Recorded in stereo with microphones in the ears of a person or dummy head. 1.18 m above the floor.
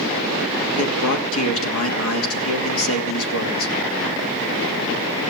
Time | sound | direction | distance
0.8 | a man speaking | 70° left (ahead or behind) | 2.5 m